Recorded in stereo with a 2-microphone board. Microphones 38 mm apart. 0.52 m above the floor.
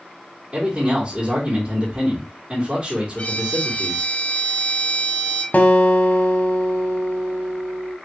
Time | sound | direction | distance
0.5 | a man speaking | 30° right (ahead or behind) | 1.3 m
3.2 | a violin | 50° left (ahead or behind) | 0.7 m
5.5 | a guitar | 50° left (ahead or behind) | 0.6 m